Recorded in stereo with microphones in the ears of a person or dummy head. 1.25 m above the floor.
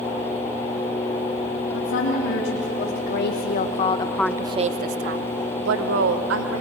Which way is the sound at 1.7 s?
70° left (ahead or behind).